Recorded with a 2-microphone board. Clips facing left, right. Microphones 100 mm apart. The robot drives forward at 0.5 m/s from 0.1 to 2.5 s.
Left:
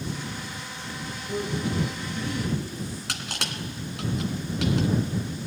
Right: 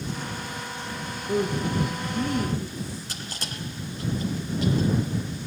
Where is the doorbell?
I don't hear a doorbell.